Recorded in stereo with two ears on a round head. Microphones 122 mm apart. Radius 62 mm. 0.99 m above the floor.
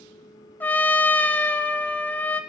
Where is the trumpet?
15° left (ahead or behind), 0.7 m.